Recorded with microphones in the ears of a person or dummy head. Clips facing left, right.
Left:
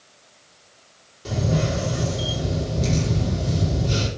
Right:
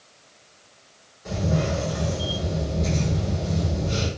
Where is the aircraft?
I don't hear an aircraft.